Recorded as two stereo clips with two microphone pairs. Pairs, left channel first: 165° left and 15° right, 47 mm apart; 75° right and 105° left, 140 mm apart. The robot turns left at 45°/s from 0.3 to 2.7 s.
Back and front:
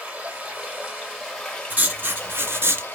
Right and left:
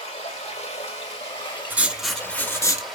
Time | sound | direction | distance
0.0 | running water | 60° right | 1.1 m
1.7 | writing | 30° left | 0.5 m